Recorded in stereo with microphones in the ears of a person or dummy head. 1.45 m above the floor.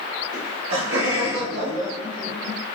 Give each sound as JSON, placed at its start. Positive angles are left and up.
{"t": 0.3, "sound": "laughter", "side_deg": -90, "distance_m": 1.7}